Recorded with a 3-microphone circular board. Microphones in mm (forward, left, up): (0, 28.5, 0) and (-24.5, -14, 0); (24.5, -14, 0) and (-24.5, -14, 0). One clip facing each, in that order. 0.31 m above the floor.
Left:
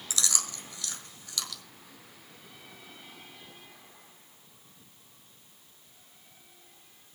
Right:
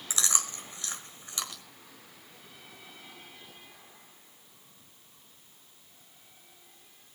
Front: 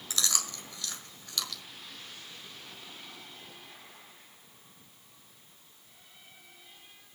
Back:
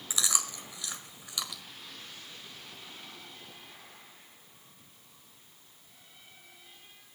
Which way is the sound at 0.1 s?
125° right.